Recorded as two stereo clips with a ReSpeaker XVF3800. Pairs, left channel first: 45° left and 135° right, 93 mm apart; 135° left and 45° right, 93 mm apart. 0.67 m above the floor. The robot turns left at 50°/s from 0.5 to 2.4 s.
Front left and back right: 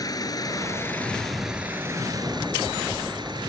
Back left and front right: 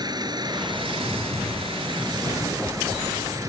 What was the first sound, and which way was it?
An engine running, straight ahead.